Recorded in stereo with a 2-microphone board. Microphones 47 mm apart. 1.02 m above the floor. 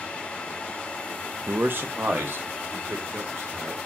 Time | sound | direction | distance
1.5 | a man speaking | 45° right (ahead or behind) | 0.7 m